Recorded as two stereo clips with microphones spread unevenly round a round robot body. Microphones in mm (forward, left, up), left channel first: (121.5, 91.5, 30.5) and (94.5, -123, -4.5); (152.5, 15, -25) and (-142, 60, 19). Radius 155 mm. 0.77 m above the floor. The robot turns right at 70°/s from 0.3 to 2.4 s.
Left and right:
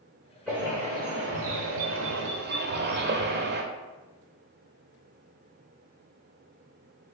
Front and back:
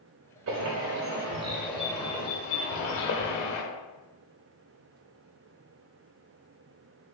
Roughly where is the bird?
Behind.